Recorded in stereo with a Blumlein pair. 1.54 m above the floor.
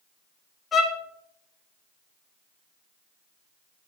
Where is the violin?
20° left, 1.0 m.